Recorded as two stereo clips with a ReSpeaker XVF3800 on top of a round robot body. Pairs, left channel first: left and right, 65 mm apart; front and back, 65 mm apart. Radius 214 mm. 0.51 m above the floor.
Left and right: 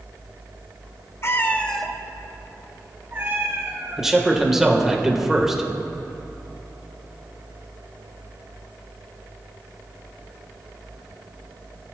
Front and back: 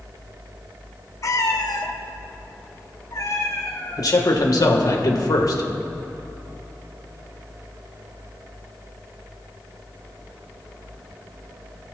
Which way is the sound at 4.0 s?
5° right.